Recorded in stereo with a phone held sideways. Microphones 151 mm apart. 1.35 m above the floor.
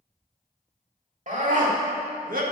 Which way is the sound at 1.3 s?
60° right (ahead or behind).